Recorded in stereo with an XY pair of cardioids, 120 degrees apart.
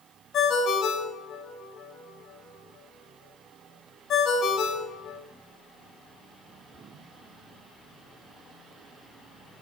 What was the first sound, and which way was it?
A ringtone, 60° left.